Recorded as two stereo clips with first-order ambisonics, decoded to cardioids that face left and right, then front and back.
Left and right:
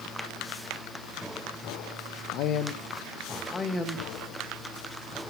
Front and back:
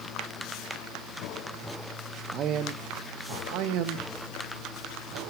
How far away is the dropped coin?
I don't hear a dropped coin.